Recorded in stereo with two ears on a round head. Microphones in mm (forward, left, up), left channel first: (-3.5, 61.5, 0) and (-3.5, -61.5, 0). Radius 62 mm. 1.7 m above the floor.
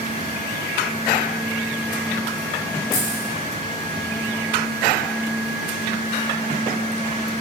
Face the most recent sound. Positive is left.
turn(degrees=70)  # may be behind; listen again after turning